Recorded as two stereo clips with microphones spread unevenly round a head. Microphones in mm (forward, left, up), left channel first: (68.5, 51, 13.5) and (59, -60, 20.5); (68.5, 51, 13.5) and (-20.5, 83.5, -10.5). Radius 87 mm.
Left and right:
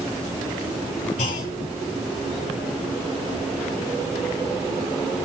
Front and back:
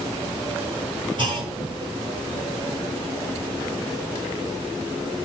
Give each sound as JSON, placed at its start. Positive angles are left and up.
{"t": 1.2, "sound": "a clunk", "azimuth_deg": 120, "distance_m": 5.0}